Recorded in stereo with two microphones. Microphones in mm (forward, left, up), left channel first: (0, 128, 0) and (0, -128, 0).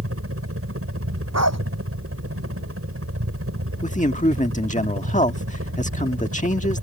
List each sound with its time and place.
0.0 s a helicopter: 60° right (ahead or behind)
1.3 s a dog barking: 90° right
3.8 s a man speaking: 30° left (ahead or behind)